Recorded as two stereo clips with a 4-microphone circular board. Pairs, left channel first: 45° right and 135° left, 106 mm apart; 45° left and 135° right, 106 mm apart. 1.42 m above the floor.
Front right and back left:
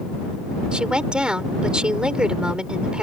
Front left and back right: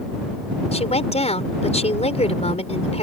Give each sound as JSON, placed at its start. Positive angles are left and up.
{"t": 0.7, "sound": "a woman speaking", "azimuth_deg": 55}